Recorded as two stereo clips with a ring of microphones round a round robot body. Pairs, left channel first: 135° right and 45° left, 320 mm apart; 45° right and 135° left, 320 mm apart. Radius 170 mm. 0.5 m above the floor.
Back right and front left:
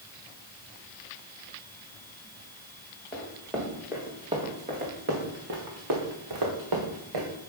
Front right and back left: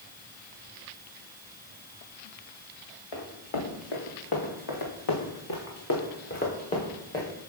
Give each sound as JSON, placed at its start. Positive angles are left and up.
{"t": 3.1, "sound": "running footsteps", "azimuth_deg": -50, "distance_m": 4.0}